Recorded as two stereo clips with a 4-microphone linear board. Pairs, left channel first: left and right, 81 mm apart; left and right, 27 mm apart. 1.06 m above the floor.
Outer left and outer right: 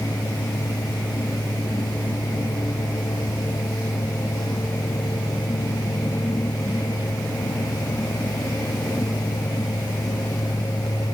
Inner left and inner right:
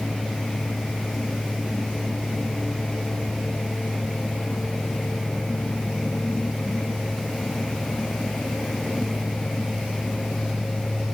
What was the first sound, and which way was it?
Only background noise.